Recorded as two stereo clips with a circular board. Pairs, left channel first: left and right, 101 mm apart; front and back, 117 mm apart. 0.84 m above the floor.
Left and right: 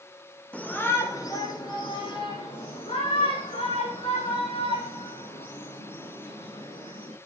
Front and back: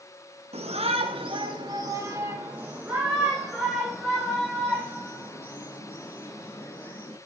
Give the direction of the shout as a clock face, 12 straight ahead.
6 o'clock.